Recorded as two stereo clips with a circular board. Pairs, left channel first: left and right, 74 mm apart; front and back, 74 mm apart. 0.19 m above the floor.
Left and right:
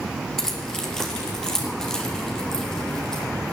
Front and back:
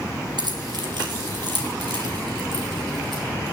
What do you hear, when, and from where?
0.4 s keys jangling: 175° left, 2.5 m; by 3.2 s 170° left, 5 m